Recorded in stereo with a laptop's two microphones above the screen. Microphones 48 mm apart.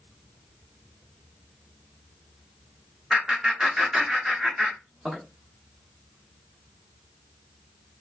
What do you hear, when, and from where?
3.1 s laughter: 15° right (ahead or behind), 0.6 m